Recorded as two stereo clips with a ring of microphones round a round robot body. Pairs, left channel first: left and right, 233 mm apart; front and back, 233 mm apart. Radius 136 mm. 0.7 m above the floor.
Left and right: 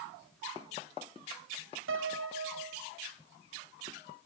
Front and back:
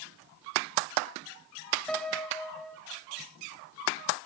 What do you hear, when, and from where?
1.9 s a piano: 85° right, 1.6 m